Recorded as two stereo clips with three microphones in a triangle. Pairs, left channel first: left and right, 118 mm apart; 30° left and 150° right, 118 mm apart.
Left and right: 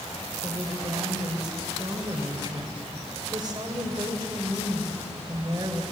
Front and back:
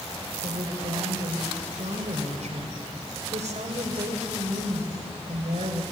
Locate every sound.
0.4 s a woman speaking: 145° right, 3.5 m